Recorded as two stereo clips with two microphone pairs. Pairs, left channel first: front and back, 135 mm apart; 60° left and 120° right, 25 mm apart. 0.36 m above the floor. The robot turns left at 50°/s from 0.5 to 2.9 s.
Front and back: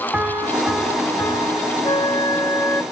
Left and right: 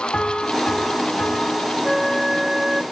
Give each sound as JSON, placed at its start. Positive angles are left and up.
{"t": 0.1, "sound": "a piano", "azimuth_deg": 105, "distance_m": 3.5}
{"t": 1.9, "sound": "a flute", "azimuth_deg": -15, "distance_m": 0.9}